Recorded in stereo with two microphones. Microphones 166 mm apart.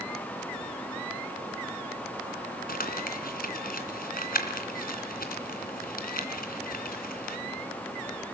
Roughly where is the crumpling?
Left.